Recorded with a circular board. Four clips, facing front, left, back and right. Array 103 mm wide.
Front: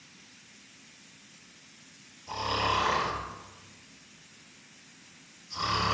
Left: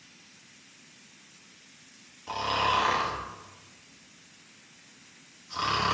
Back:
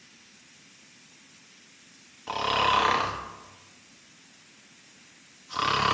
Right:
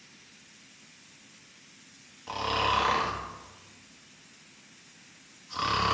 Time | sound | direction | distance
2.3 | snoring | 175° right | 1.4 m